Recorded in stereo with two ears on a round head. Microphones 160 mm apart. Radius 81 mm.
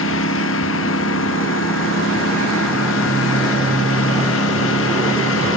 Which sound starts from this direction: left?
A lawn mower, at 0.0 s.